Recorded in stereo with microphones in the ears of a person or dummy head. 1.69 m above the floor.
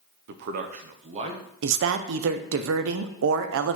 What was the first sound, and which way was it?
A man speaking, 50° right (ahead or behind).